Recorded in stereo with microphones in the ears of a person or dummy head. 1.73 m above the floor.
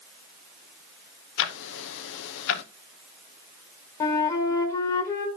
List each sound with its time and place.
1.4 s ticking: 70° left (ahead or behind), 0.9 m
4.0 s a flute: 15° left (ahead or behind), 1.5 m